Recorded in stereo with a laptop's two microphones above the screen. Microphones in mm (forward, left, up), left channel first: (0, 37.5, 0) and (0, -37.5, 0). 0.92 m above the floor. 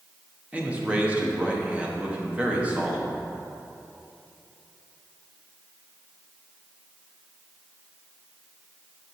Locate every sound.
0.5 s a man speaking: 20° right (ahead or behind), 1.0 m